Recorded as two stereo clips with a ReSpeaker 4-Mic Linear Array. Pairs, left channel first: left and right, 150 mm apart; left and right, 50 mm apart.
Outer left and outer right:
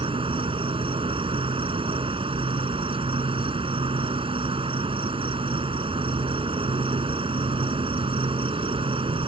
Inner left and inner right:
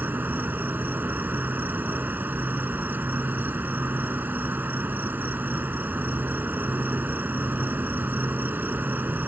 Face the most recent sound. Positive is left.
turn(degrees=-40)  # may be behind; listen again after turning